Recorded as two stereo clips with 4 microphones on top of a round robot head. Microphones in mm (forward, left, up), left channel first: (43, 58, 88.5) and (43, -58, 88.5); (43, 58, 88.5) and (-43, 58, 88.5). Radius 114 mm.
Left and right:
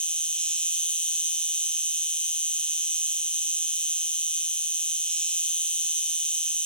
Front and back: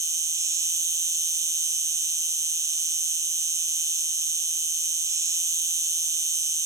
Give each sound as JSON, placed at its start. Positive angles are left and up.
{"t": 0.0, "sound": "an insect", "azimuth_deg": 165, "distance_m": 1.6}